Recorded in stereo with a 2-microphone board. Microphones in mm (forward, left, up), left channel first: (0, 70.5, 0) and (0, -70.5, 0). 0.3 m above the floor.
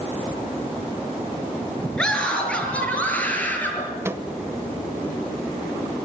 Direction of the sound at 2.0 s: 5° left (ahead or behind).